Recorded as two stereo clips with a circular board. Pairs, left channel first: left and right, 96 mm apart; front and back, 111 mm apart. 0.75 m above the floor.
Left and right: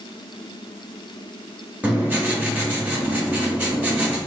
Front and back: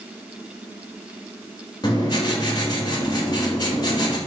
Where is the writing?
25° right, 0.9 m.